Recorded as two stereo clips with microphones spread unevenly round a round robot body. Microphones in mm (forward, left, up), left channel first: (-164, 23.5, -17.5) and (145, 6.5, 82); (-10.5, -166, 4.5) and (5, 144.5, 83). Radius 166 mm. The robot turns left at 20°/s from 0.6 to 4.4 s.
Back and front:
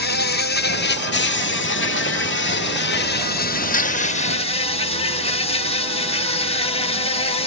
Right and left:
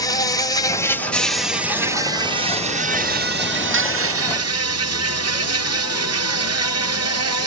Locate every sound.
0.0 s an insect: 155° right; by 7.5 s 125° left